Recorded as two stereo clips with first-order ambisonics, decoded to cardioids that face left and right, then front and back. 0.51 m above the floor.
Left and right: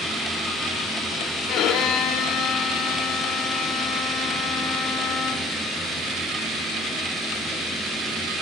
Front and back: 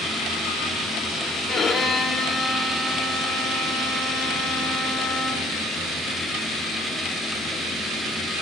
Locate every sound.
1.5 s a violin: 60° left, 1.3 m